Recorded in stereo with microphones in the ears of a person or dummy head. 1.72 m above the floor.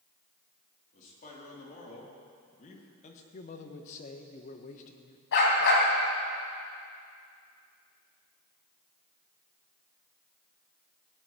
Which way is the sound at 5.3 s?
70° left (ahead or behind).